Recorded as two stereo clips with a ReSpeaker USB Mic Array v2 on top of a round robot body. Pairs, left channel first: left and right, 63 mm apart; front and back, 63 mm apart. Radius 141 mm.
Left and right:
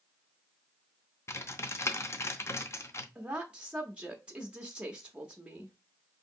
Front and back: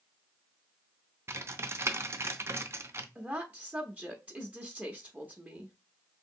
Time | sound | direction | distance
1.3 | typing on a keyboard | 135° left | 0.6 m
3.1 | a woman speaking | 140° right | 0.8 m